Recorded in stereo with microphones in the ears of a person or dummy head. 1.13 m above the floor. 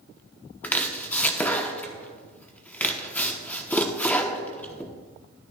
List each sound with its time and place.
0.6 s chopping: 10° left (ahead or behind), 0.9 m